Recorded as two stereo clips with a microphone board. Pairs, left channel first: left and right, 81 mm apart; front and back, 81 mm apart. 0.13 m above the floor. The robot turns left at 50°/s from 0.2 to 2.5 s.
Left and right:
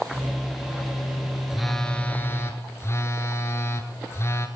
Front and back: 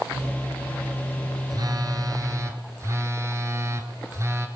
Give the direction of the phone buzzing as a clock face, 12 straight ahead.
6 o'clock.